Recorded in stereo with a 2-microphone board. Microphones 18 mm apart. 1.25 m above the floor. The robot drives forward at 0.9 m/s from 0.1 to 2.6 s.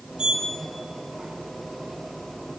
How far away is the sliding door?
About 3 m.